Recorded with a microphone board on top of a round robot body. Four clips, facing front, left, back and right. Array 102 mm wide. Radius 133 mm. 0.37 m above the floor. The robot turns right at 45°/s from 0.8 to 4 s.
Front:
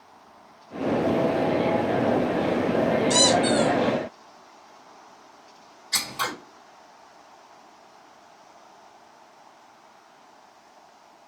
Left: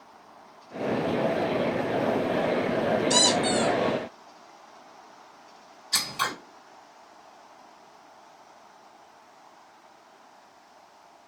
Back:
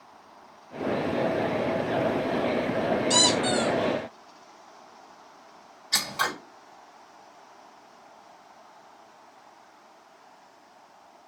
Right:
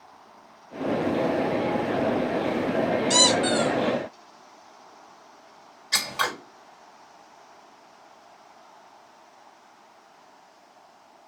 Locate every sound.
3.1 s a squeak: 110° right, 1.7 m; by 3.7 s 85° right, 1.7 m
5.9 s scissors: 105° right, 1.9 m